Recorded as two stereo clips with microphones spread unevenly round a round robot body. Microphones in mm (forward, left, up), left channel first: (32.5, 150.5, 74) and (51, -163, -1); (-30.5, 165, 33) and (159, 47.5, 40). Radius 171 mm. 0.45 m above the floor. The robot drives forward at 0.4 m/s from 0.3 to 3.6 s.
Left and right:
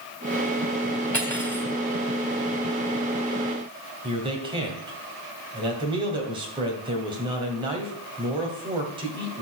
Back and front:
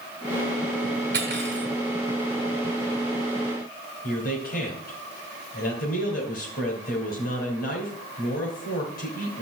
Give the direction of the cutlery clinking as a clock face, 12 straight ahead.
12 o'clock.